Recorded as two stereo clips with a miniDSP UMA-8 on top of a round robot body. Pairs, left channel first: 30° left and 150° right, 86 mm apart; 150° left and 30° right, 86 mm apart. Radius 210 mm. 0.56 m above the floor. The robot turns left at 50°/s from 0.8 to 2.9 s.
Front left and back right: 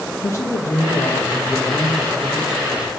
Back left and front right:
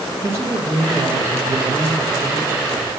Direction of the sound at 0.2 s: 10° left.